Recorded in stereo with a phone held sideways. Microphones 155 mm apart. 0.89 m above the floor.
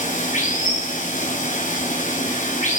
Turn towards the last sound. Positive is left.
turn(degrees=55)  # may be behind; listen again after turning